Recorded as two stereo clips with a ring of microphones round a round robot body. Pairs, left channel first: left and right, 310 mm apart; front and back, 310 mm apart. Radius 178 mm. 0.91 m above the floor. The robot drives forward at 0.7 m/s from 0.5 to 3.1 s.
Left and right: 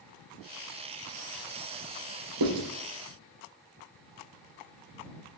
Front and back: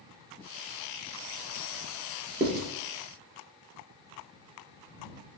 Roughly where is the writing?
Behind right.